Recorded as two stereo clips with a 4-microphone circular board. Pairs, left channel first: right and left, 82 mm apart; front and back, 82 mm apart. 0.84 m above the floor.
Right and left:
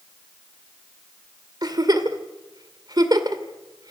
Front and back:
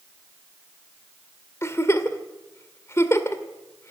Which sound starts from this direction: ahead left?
A giggle, at 1.6 s.